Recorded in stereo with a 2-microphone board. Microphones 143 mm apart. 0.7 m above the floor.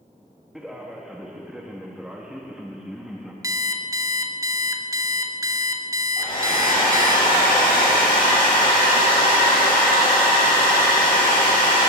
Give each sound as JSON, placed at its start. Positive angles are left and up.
{"t": 0.6, "sound": "a man speaking", "side_deg": -5, "distance_m": 0.8}
{"t": 3.4, "sound": "an alarm clock", "side_deg": -20, "distance_m": 0.6}
{"t": 6.2, "sound": "a hair dryer", "side_deg": 75, "distance_m": 3.5}